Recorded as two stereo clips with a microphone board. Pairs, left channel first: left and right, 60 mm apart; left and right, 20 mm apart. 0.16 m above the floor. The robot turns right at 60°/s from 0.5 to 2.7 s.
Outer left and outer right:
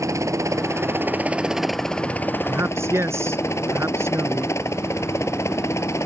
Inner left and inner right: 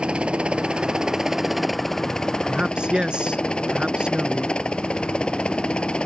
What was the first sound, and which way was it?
A helicopter, 60° right (ahead or behind).